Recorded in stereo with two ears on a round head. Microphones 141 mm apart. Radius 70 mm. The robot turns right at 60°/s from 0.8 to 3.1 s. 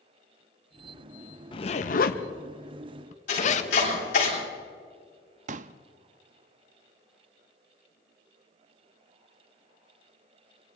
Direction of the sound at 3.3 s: 50° left (ahead or behind).